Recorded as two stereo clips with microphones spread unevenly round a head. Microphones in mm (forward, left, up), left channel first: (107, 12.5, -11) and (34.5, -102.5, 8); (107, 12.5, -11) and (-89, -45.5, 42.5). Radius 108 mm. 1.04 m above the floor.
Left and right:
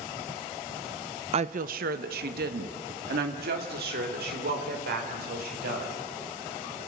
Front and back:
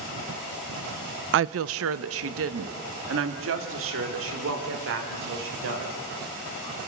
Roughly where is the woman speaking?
Behind.